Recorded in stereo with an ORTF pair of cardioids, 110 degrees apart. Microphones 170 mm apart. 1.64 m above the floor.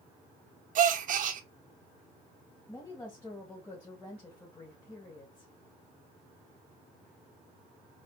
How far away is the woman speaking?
About 2 m.